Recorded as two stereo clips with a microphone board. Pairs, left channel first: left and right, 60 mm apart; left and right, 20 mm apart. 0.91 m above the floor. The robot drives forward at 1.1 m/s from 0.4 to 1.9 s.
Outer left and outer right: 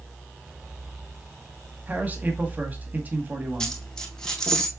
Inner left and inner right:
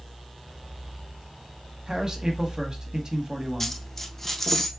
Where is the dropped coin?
10° left (ahead or behind), 1.8 m.